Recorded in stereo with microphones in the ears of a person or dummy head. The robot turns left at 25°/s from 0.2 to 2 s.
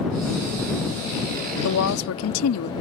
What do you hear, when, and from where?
1.6 s a woman speaking: 85° left